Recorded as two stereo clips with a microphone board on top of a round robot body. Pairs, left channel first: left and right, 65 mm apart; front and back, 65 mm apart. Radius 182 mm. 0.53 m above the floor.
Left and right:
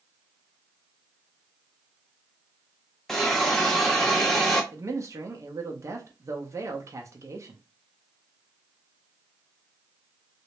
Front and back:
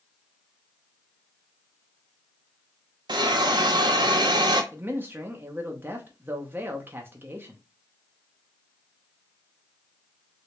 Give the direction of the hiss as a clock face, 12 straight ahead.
6 o'clock.